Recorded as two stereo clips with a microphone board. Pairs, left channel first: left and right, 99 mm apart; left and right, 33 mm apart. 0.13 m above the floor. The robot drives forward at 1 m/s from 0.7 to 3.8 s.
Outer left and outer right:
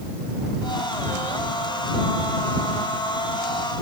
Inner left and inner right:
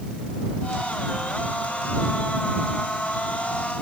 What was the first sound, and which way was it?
Only background noise.